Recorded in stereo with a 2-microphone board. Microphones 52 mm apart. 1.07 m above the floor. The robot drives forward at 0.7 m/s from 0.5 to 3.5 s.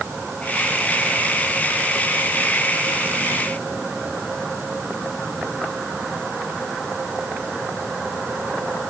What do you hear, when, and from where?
Only background noise.